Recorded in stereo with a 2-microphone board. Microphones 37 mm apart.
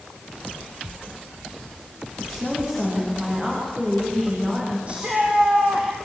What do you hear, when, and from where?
2.2 s a woman speaking: 10° right (ahead or behind), 10 m; by 4.8 s 15° right (ahead or behind), 11 m
4.9 s a shout: 30° right (ahead or behind), 4.5 m